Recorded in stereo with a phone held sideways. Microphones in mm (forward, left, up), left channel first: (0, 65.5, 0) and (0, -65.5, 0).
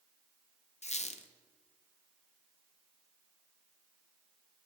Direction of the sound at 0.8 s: 60° left (ahead or behind).